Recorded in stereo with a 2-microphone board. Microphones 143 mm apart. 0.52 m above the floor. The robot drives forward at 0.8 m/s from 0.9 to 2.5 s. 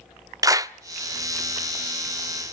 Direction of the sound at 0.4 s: 25° right (ahead or behind).